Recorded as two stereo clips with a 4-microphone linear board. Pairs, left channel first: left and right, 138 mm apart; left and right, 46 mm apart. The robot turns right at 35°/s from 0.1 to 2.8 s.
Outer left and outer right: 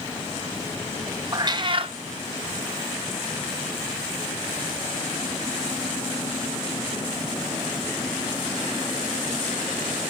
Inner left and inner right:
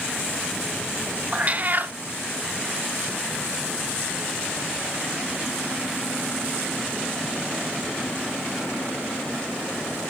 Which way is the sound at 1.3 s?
25° right (ahead or behind).